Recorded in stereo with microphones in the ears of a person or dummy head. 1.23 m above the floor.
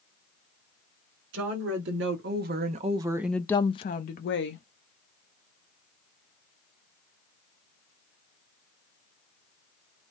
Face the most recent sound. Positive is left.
turn(degrees=60)  # may be behind; listen again after turning